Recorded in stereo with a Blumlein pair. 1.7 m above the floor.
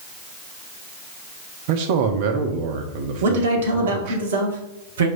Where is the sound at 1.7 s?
50° right, 0.9 m.